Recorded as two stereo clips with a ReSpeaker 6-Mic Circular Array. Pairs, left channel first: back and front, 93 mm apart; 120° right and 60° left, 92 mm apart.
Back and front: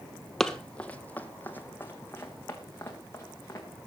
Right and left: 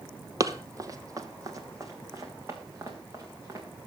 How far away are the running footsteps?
About 1.0 m.